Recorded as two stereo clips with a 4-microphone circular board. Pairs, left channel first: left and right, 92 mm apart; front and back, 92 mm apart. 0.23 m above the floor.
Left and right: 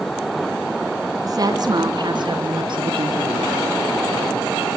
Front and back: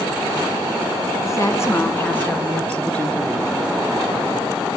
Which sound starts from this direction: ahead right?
A woman speaking, at 1.2 s.